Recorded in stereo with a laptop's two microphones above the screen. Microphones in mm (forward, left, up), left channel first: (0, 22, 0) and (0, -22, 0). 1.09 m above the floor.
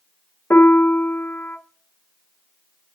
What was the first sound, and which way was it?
A piano, 65° left (ahead or behind).